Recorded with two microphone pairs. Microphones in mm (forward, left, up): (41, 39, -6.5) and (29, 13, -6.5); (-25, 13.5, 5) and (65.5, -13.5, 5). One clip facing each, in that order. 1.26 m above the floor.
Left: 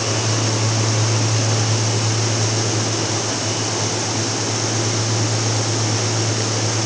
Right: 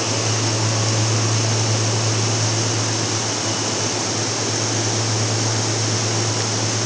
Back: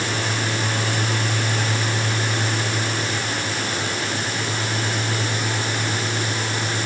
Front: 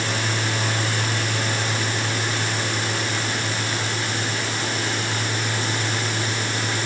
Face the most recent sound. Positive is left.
No sound to turn to.